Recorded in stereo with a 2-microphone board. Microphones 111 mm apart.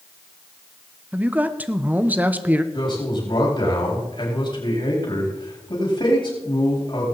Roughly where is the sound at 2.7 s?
Left.